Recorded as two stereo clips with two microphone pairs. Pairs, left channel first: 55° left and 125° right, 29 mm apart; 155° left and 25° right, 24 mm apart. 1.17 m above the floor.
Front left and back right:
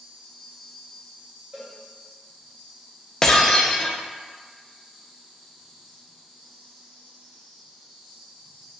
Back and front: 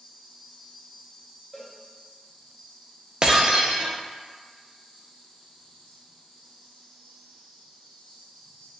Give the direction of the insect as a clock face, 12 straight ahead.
6 o'clock.